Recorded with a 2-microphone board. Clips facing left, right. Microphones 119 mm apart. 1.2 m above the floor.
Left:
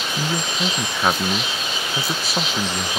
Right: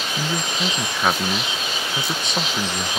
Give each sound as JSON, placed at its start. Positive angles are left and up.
{"t": 0.2, "sound": "a man speaking", "side_deg": 5}